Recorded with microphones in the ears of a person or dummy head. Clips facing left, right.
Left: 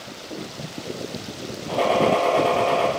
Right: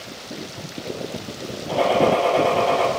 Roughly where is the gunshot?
Centre.